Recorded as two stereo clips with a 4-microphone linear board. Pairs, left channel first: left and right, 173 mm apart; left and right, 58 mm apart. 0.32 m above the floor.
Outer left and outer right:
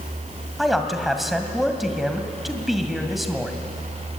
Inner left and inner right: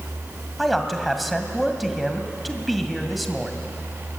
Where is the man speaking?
Centre (ahead or behind), 2 m.